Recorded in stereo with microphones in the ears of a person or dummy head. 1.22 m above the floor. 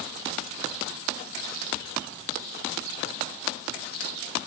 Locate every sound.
Only background noise.